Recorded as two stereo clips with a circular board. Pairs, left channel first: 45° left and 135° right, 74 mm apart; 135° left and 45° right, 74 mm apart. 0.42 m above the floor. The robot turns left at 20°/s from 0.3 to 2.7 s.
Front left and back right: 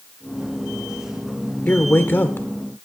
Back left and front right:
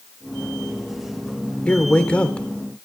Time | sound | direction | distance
1.7 | a man speaking | 85° left | 1.0 m